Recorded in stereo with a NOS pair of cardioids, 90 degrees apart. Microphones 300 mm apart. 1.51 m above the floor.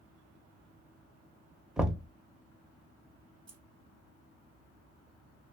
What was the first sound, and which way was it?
Knocking, straight ahead.